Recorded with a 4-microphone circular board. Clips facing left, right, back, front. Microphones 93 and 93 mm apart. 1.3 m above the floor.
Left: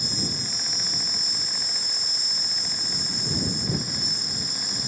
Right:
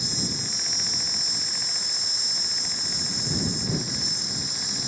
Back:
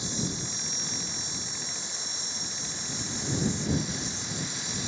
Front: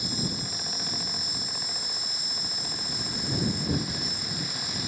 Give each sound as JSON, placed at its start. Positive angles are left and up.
{"t": 0.0, "sound": "an insect", "azimuth_deg": 115}